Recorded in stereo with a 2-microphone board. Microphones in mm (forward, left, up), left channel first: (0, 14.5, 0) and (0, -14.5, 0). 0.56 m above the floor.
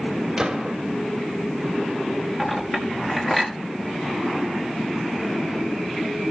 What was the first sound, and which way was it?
A gunshot, 25° right (ahead or behind).